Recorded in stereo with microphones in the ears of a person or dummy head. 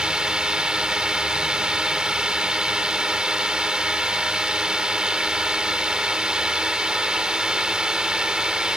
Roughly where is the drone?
Centre.